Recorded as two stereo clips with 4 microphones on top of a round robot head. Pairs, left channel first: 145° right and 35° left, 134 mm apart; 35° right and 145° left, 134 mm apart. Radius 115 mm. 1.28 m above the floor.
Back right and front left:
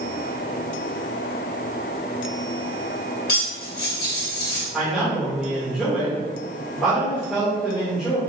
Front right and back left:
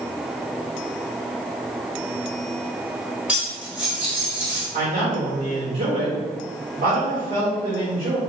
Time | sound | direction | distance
3.3 | cutlery clinking | 130° right | 1.4 m
4.7 | a man speaking | 120° left | 1.7 m